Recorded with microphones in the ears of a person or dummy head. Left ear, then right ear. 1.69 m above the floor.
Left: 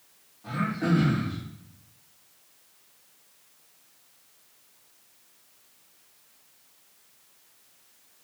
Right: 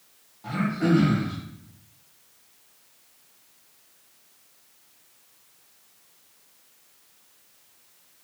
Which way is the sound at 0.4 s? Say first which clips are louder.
Right 3 dB; 90° right.